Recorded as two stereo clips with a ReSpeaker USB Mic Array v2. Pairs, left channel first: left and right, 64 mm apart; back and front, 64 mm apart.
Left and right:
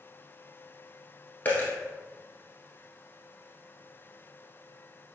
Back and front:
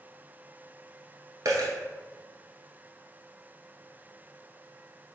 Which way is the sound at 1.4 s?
25° left.